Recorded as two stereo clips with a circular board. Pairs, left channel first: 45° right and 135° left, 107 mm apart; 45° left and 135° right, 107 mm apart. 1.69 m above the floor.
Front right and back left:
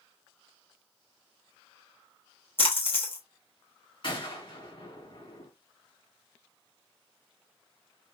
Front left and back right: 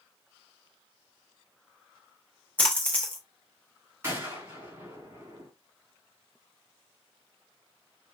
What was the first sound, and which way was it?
A splash, 30° right.